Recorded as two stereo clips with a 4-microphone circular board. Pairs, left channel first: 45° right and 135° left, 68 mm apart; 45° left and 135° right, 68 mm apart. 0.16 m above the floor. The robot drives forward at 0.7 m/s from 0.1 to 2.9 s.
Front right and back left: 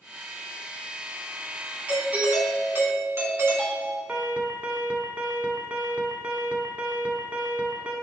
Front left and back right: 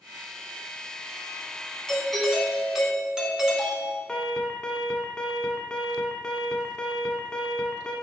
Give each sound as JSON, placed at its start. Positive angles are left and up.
{"t": 1.9, "sound": "a doorbell", "azimuth_deg": 110, "distance_m": 1.5}
{"t": 4.1, "sound": "an alarm", "azimuth_deg": 105, "distance_m": 1.0}